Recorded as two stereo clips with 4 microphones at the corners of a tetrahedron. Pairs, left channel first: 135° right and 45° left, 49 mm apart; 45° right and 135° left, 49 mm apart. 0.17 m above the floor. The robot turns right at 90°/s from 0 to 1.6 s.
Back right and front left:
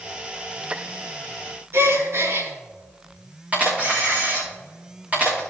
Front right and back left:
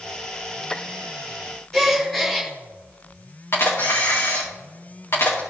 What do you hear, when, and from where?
1.7 s a gasp: 40° left, 3.5 m
3.5 s a camera shutter: 15° right, 4.5 m